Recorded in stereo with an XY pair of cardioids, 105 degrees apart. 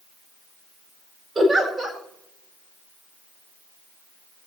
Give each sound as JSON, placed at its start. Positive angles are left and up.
{"t": 1.4, "sound": "a giggle", "azimuth_deg": -30, "distance_m": 5.0}